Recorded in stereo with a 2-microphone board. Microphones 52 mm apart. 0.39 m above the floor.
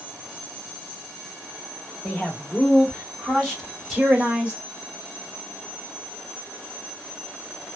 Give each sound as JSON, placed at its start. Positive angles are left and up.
{"t": 2.0, "sound": "a man speaking", "side_deg": 30, "distance_m": 1.4}